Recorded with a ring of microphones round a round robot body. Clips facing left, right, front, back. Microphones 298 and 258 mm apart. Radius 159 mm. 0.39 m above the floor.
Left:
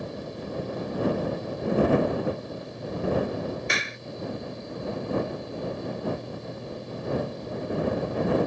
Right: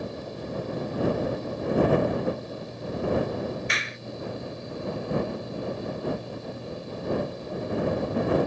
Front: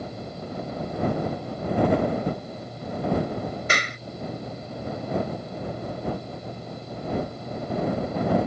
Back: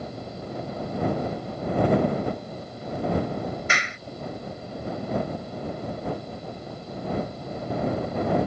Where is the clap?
50° left.